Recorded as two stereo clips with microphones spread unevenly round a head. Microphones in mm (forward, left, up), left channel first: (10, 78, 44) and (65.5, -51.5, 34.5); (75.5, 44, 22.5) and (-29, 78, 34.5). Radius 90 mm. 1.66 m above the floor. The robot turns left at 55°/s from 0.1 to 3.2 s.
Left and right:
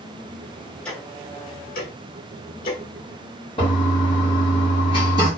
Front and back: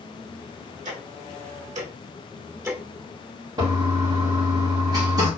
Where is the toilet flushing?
150° left, 1.2 m.